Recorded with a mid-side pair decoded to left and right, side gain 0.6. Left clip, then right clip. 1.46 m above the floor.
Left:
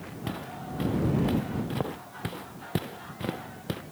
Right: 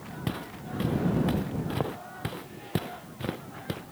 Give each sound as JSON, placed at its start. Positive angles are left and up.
{"t": 0.3, "sound": "footsteps", "azimuth_deg": -15}